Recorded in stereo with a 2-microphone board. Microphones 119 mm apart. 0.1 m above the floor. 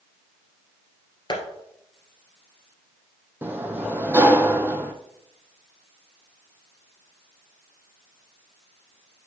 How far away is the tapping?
About 1.9 m.